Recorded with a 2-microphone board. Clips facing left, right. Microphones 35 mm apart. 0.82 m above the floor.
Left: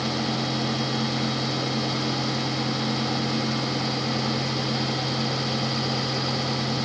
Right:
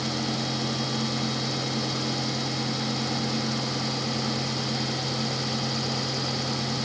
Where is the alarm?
No alarm in this recording.